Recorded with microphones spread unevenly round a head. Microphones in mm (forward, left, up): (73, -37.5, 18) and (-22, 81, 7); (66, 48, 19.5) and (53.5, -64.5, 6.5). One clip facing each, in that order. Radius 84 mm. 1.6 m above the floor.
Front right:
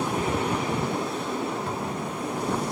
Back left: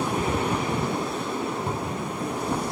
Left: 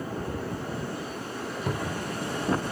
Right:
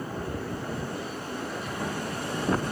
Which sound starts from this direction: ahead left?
A cupboard door, at 1.7 s.